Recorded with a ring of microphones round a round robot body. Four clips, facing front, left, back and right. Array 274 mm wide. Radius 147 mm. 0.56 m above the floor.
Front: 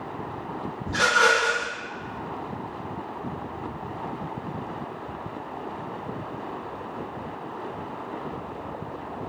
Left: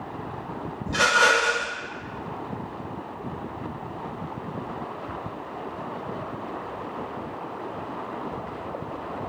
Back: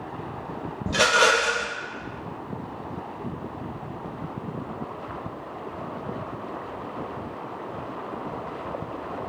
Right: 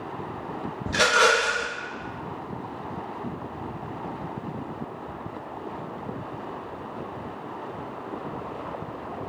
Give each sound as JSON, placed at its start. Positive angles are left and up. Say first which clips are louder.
{"t": 0.9, "sound": "a rattle", "louder": "even, back 1 dB", "azimuth_deg": -150, "distance_m": 0.5}